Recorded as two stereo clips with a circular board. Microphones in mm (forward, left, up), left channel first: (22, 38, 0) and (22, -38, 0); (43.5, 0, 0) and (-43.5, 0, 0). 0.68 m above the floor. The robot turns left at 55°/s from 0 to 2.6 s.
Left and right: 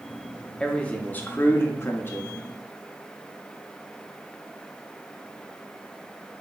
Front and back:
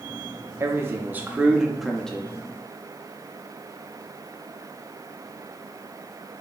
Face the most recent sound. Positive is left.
turn(degrees=50)